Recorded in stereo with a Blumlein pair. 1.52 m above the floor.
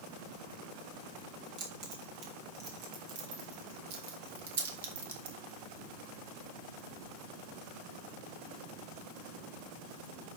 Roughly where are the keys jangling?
Ahead right.